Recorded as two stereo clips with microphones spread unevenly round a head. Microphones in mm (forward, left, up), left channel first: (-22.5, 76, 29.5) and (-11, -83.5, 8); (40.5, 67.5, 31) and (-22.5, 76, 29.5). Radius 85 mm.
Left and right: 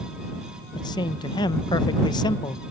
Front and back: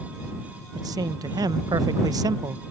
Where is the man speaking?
155° left.